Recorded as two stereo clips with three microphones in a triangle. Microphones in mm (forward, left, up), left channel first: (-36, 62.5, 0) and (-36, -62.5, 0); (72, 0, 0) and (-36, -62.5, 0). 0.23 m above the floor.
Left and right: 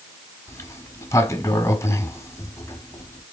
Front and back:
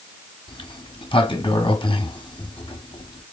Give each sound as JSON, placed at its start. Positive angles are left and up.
{"t": 0.5, "sound": "a sliding door", "azimuth_deg": 35, "distance_m": 1.1}